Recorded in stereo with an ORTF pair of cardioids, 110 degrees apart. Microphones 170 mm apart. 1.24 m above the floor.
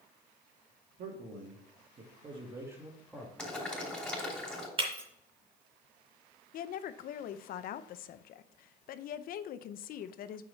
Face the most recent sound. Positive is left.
turn(degrees=60)